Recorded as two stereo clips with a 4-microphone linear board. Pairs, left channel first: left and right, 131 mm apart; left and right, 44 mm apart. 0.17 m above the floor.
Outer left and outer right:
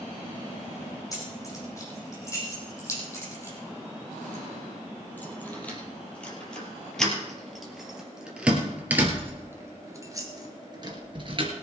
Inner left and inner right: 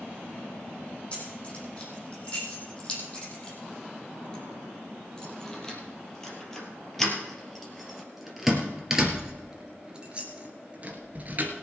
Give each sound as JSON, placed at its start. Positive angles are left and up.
{"t": 1.1, "sound": "keys jangling", "side_deg": 25, "distance_m": 5.5}